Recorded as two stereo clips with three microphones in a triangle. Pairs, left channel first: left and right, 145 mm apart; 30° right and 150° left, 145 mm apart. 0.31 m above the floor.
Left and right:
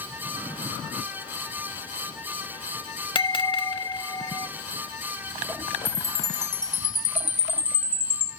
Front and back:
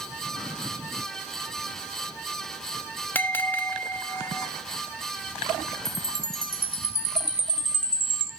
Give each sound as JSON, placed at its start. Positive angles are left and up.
{"t": 3.1, "sound": "a bell", "azimuth_deg": 40, "distance_m": 0.7}
{"t": 5.8, "sound": "a chime", "azimuth_deg": 135, "distance_m": 1.7}